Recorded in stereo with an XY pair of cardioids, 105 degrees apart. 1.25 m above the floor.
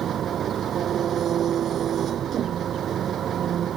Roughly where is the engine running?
Ahead right.